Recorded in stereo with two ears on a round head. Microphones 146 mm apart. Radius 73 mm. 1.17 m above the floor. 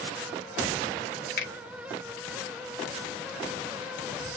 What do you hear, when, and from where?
1.4 s a finger snap: 60° left (ahead or behind), 1.0 m